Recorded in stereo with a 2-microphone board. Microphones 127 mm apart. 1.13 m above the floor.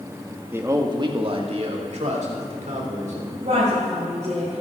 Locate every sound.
0.5 s a man speaking: 15° right (ahead or behind), 1.3 m; by 3.3 s 70° right (ahead or behind), 3.5 m
3.4 s a woman speaking: 65° right (ahead or behind), 5.5 m